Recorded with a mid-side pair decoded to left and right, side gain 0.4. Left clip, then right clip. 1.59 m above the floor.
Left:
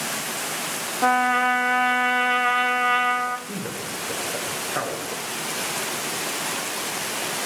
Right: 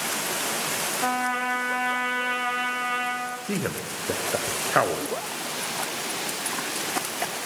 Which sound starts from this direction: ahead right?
A man speaking, at 3.5 s.